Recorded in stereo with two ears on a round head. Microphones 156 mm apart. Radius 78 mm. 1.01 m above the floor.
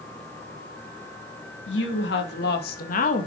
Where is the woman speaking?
75° left (ahead or behind), 2.5 m; by 3.3 s 40° left (ahead or behind), 1.4 m.